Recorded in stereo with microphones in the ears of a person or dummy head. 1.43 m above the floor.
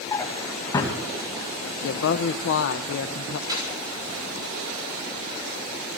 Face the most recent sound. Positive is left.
turn(degrees=-25)  # may be behind; listen again after turning